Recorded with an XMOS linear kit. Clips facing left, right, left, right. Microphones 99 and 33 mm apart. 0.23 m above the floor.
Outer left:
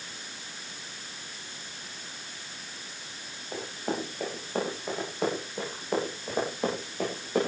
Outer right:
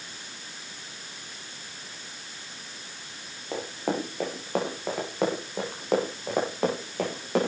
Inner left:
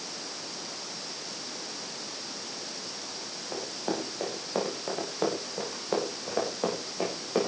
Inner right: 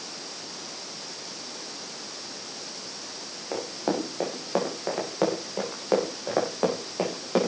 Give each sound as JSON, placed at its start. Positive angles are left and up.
{"t": 3.5, "sound": "running footsteps", "side_deg": -85, "distance_m": 10.0}